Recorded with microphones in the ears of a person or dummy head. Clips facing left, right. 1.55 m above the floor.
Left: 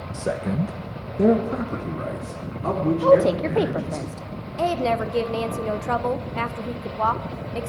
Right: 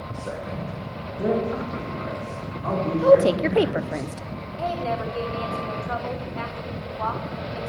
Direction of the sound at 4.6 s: 55° left (ahead or behind).